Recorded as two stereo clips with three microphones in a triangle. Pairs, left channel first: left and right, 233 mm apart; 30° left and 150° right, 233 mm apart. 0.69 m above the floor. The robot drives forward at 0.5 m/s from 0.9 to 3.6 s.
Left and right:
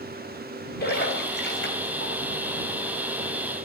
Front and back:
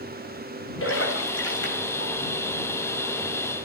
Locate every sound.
0.8 s a splash: 45° left, 3.5 m; by 2.1 s 55° left, 3 m